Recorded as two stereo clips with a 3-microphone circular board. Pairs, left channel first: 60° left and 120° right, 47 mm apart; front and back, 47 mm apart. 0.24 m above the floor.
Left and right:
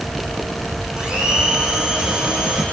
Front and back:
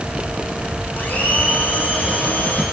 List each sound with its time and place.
1.0 s a blender: 45° right, 6 m